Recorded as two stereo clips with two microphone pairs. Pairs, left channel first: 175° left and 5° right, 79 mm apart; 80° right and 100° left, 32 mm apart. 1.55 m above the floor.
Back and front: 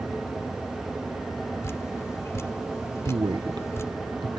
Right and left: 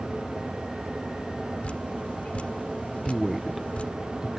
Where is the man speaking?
20° left.